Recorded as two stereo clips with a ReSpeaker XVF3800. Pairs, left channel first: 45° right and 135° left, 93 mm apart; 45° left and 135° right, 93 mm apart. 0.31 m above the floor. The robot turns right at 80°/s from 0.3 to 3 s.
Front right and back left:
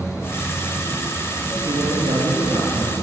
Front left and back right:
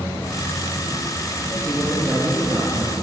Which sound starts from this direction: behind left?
A man speaking, at 1.6 s.